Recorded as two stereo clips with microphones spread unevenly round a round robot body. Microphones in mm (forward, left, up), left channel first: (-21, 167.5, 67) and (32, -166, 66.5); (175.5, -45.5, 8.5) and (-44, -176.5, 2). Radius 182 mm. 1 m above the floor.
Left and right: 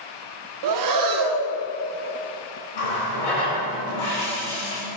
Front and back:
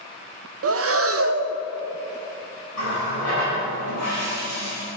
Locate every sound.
0.6 s breathing: 110° right, 0.6 m
2.7 s a running tap: 85° left, 3 m